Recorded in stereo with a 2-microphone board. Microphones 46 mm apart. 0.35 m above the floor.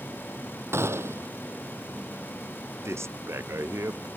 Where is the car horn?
No car horn in this recording.